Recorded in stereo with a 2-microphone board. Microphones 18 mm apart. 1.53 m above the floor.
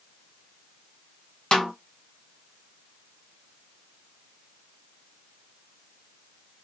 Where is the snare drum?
60° left (ahead or behind), 1.8 m.